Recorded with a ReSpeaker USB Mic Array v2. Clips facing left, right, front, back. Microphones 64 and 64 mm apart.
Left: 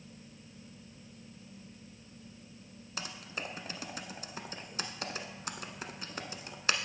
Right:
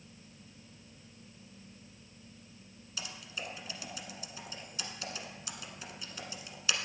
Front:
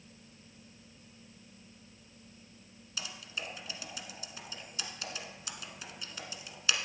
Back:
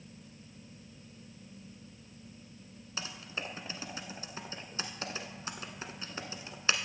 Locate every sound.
3.0 s typing on a keyboard: 125° left, 1.0 m